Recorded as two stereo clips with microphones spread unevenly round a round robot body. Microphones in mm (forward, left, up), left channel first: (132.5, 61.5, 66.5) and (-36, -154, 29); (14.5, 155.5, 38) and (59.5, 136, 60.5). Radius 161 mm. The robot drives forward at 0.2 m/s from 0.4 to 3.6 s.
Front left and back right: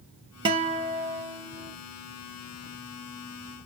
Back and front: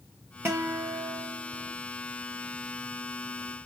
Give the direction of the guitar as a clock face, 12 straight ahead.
3 o'clock.